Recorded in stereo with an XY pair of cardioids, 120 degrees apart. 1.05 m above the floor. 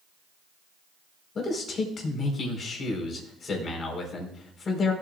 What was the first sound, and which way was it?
A man speaking, 40° left.